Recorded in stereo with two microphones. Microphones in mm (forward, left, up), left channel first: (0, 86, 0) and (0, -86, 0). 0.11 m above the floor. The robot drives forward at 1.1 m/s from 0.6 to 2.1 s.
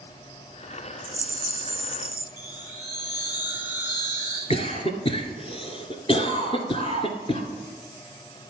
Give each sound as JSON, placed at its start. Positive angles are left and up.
{"t": 1.0, "sound": "a rattle", "side_deg": -20, "distance_m": 1.4}
{"t": 2.4, "sound": "a chime", "side_deg": 80, "distance_m": 4.0}
{"t": 4.5, "sound": "a cough", "side_deg": 35, "distance_m": 1.4}